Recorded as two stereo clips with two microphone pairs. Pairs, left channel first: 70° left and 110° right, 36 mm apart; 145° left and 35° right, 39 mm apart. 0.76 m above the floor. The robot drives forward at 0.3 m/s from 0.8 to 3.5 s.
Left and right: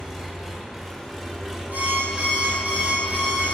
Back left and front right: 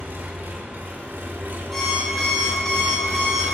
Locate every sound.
0.0 s an engine running: 30° right, 1.0 m; by 3.5 s 80° right, 0.5 m
1.7 s an alarm clock: 145° right, 3 m; by 3.4 s 150° right, 3.5 m